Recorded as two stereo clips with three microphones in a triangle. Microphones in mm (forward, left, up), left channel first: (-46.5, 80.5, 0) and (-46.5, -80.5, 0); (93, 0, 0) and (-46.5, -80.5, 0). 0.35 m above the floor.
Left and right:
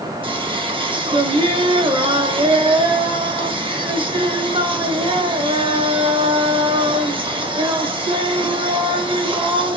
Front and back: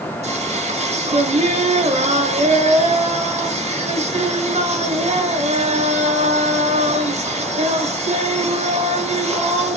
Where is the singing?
130° right, 0.8 m.